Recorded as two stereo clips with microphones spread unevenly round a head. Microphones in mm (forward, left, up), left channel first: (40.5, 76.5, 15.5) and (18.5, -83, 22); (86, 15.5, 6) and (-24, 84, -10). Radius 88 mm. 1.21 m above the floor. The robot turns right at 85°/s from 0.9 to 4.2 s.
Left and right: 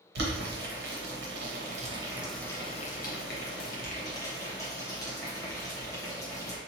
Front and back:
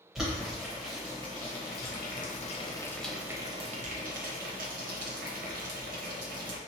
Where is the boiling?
125° right, 1.1 m; by 6.6 s 155° left, 1.1 m.